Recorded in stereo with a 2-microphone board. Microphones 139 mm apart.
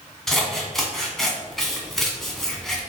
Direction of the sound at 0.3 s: Centre (ahead or behind).